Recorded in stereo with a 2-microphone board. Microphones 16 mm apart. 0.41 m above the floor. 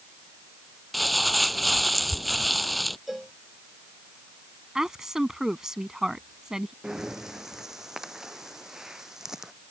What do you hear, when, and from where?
0.9 s crumpling: centre (ahead or behind)
3.1 s a cowbell: 15° right (ahead or behind)
4.8 s a woman speaking: 35° right (ahead or behind)
6.8 s breathing: 35° right (ahead or behind)